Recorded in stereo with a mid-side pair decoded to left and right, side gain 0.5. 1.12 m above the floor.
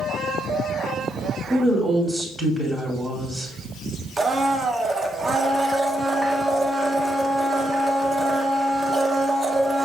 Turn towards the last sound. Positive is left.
turn(degrees=-30)